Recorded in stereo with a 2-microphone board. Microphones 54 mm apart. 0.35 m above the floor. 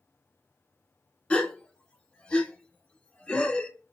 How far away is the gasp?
About 0.7 m.